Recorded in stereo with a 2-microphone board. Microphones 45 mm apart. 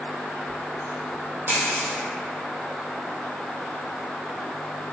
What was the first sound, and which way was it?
A dropped coin, 80° right.